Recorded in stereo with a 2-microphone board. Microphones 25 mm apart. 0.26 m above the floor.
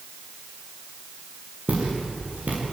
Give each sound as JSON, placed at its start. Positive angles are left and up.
{"t": 1.7, "sound": "footsteps", "side_deg": -75, "distance_m": 8.0}